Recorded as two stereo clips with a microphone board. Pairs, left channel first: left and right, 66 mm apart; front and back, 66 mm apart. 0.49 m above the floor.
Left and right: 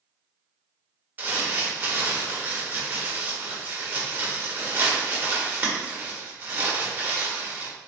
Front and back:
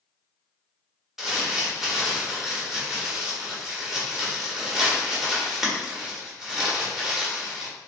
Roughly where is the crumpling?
Right.